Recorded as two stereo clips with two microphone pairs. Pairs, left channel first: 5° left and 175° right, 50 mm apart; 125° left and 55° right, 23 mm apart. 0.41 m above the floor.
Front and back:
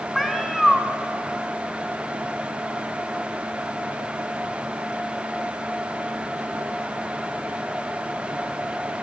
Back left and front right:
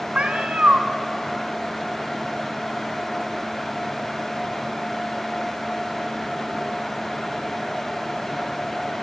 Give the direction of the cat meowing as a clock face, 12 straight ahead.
3 o'clock.